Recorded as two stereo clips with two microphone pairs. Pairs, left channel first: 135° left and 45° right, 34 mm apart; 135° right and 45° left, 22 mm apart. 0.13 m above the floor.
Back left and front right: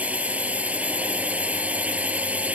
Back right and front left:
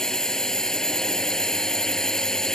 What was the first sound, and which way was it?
A drone, 80° right.